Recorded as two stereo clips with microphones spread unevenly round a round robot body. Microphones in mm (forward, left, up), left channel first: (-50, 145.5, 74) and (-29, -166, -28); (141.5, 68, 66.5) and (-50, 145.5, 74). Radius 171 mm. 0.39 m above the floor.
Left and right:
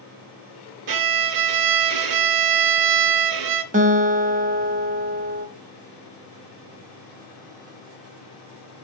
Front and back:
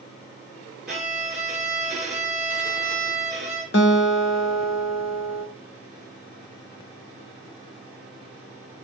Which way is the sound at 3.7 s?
30° right.